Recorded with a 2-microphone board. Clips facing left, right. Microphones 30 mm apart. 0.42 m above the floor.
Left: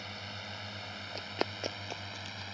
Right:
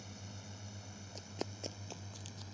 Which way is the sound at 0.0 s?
55° left (ahead or behind).